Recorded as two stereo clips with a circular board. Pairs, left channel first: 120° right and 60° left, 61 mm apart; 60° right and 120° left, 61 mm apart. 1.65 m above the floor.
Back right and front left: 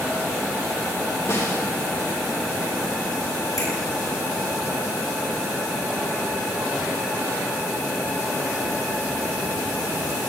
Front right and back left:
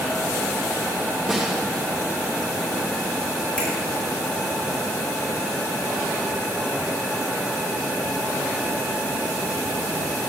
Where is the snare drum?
155° right, 2.5 m.